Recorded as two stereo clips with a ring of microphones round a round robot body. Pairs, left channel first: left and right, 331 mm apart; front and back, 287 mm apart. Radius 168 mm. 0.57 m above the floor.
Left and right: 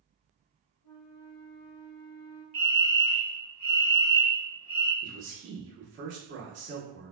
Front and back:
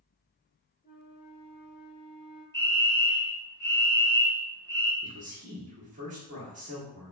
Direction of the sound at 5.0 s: 125° right.